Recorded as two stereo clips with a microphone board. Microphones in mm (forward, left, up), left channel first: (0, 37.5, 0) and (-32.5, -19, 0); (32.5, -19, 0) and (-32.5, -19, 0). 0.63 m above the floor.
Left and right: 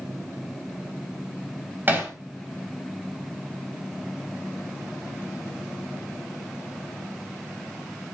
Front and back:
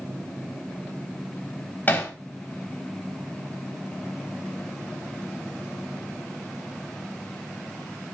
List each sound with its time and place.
1.9 s hammering: 55° right, 3.5 m